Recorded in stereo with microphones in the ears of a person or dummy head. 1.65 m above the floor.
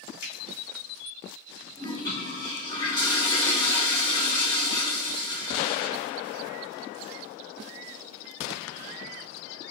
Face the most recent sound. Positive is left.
turn(degrees=25)  # may be behind; listen again after turning